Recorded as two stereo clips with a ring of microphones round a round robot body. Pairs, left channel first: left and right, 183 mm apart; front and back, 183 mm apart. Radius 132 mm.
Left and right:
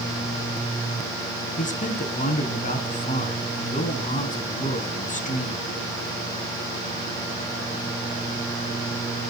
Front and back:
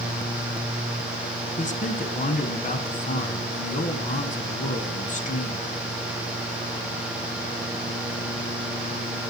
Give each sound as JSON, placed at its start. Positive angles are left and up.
{"t": 1.6, "sound": "a man speaking", "azimuth_deg": 45, "distance_m": 3.0}